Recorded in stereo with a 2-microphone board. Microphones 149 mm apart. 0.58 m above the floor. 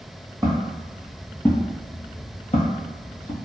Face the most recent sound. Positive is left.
turn(degrees=65)  # may be behind; listen again after turning